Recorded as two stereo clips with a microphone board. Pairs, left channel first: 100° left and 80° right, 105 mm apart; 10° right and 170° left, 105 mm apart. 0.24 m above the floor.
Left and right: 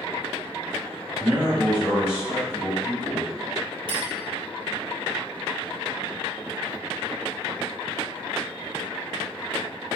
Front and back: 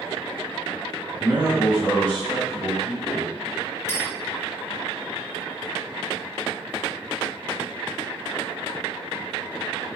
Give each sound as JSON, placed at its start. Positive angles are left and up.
{"t": 1.2, "sound": "a man speaking", "azimuth_deg": -150, "distance_m": 1.6}
{"t": 3.9, "sound": "a clink", "azimuth_deg": -70, "distance_m": 1.2}